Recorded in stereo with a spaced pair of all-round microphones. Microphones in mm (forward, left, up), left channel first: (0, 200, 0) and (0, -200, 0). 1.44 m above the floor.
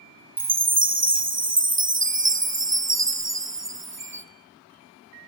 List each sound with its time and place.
0.4 s a chime: 30° right (ahead or behind), 0.7 m